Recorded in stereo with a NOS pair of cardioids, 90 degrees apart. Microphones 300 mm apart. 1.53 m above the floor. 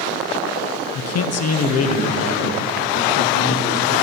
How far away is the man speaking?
About 0.7 m.